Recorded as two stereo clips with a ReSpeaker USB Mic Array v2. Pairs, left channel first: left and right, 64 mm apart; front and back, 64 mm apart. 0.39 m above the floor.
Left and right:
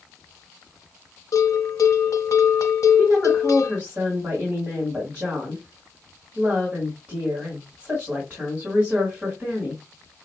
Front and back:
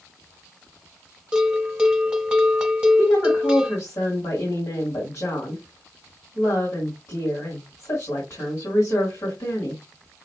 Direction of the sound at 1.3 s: 105° left.